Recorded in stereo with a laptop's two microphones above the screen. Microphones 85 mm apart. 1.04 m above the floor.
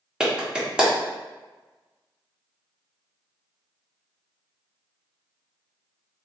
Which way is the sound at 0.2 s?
10° right (ahead or behind).